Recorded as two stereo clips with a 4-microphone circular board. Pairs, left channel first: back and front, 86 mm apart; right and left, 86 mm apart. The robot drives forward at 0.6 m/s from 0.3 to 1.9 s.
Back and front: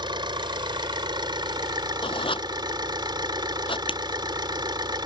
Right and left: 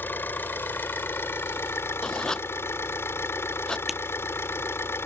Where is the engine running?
25° right; by 5.1 s 30° right.